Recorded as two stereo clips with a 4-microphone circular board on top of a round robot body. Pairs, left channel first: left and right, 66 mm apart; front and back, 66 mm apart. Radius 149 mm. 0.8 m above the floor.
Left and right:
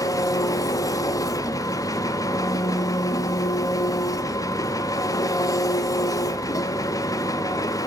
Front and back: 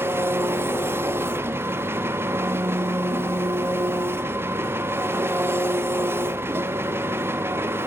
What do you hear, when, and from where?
0.0 s an engine running: 125° left, 1.0 m